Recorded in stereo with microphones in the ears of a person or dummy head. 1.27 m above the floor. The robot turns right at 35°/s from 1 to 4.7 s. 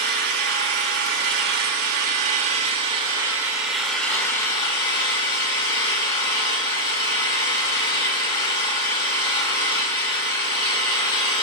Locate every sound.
0.0 s an engine running: 100° right, 1.6 m; by 11.4 s 30° left, 1.6 m